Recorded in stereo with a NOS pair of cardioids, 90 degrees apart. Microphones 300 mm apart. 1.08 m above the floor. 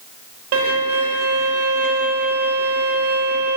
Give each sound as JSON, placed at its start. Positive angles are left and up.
{"t": 0.5, "sound": "a violin", "azimuth_deg": -55, "distance_m": 0.8}